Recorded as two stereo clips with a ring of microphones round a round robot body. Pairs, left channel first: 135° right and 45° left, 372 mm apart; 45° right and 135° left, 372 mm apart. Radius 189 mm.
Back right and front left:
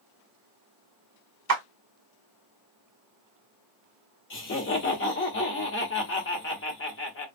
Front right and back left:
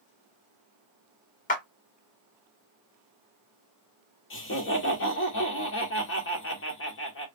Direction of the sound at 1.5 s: 15° left.